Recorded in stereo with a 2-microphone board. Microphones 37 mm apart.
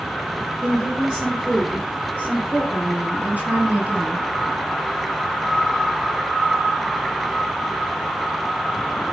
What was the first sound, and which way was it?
A woman speaking, 25° right (ahead or behind).